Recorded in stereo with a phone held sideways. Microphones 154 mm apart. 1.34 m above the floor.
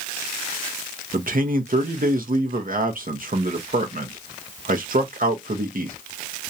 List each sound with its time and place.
1.1 s a man speaking: 65° right (ahead or behind), 0.6 m